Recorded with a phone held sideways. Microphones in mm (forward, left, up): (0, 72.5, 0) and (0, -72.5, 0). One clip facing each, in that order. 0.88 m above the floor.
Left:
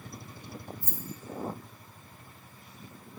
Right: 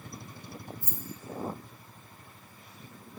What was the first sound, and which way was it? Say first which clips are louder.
Keys jangling: left 1 dB; 70° right (ahead or behind).